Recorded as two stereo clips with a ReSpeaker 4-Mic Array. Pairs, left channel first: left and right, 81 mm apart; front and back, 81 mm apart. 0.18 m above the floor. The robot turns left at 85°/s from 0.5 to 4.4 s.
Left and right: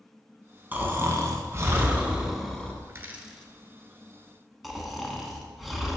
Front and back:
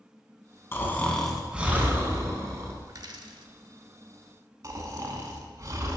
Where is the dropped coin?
140° right, 0.6 m; by 3.5 s 165° left, 0.6 m.